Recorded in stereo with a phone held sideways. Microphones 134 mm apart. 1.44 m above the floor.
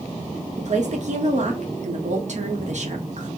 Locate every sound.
0.6 s a woman speaking: 60° right (ahead or behind), 0.9 m